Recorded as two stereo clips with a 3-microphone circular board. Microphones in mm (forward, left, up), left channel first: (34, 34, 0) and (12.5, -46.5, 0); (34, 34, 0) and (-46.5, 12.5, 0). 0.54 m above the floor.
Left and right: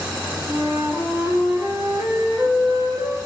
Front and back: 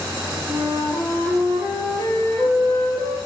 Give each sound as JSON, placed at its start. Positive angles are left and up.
{"t": 0.5, "sound": "a flute", "azimuth_deg": -165, "distance_m": 6.5}